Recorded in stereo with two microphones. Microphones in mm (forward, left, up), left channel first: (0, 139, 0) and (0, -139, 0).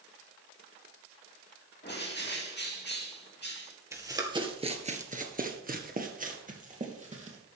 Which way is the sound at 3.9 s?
10° right (ahead or behind).